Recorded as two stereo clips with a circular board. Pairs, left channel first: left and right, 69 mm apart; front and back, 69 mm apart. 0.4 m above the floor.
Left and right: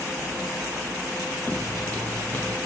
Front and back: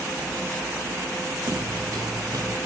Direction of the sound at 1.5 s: 160° left.